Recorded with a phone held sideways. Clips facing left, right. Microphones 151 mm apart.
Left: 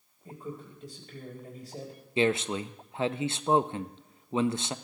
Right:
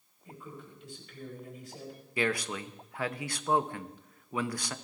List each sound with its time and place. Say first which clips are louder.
0.2 s a man speaking: left 6 dB; 40° left (ahead or behind), 5 m
2.2 s a man speaking: left 5 dB; 25° left (ahead or behind), 0.5 m